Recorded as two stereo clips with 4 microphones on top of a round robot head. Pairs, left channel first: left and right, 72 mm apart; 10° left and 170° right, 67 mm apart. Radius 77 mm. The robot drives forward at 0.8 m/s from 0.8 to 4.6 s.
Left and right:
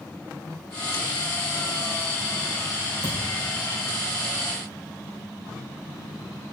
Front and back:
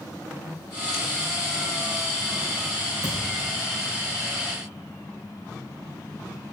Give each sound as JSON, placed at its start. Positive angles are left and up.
{"t": 3.0, "sound": "a thud", "azimuth_deg": -130, "distance_m": 2.5}